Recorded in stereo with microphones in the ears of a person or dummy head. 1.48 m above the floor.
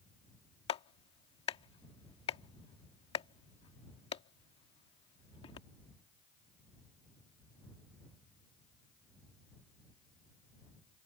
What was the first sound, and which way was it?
A clap, 30° left (ahead or behind).